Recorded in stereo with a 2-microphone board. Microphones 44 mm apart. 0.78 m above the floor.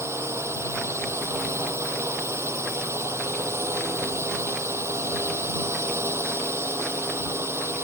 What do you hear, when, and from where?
0.0 s a drone: 90° right; by 7.8 s 70° right (ahead or behind)